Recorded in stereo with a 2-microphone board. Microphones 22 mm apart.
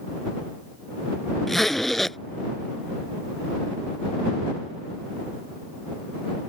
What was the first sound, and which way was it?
A zipper, 10° left (ahead or behind).